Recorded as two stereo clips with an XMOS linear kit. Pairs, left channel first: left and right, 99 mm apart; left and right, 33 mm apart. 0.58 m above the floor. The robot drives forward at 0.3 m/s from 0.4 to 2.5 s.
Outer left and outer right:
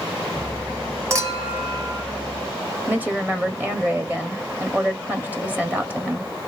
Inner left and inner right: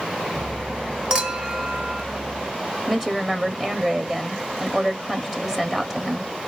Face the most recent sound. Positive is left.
turn(degrees=-15)  # may be behind; listen again after turning